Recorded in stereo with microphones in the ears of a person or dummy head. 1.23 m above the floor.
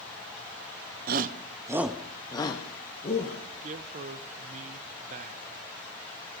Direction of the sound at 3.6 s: 40° right (ahead or behind).